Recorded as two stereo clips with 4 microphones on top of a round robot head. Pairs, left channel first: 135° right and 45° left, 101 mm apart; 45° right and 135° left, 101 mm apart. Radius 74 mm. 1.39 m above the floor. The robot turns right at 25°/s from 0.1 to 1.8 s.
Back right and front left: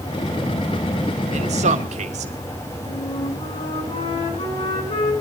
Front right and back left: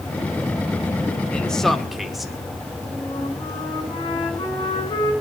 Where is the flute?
95° right, 8.5 m.